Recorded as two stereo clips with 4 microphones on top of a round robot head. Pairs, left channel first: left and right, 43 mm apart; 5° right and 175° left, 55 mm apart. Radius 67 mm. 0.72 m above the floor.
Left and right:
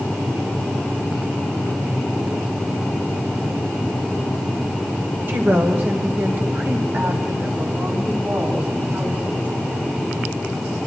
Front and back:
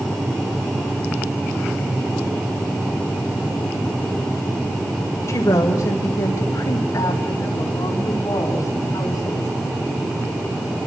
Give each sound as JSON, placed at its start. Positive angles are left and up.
{"t": 5.3, "sound": "a woman speaking", "azimuth_deg": -45, "distance_m": 4.0}